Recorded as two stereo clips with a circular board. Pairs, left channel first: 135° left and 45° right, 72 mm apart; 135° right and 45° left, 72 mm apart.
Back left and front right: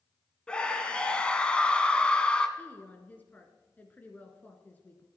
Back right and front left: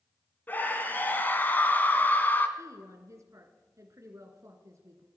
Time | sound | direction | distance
0.5 | a scream | 165° right | 1.7 m
2.6 | a woman speaking | 75° left | 1.8 m